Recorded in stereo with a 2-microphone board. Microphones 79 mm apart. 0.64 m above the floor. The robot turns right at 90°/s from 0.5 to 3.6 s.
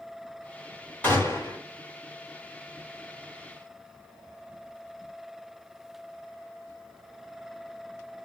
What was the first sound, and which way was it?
A gunshot, 20° left.